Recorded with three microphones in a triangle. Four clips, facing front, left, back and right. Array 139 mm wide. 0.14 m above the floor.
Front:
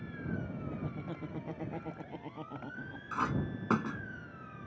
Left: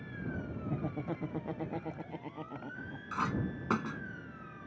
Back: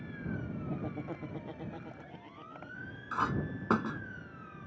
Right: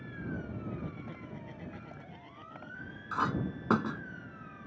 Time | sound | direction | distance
0.7 | laughter | 130° left | ?
3.1 | a clink | 120° right | ?